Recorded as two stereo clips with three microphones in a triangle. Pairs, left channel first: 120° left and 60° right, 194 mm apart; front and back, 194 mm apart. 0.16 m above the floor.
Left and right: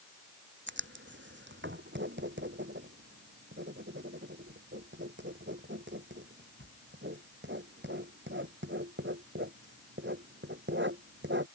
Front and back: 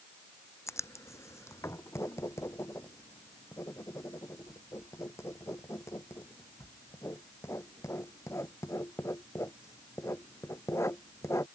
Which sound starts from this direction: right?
Writing, at 0.7 s.